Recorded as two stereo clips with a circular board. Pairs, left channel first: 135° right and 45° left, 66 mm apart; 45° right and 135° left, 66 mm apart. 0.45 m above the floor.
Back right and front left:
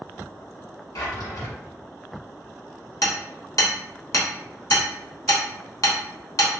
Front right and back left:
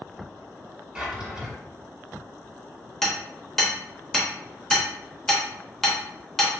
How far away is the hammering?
About 0.8 m.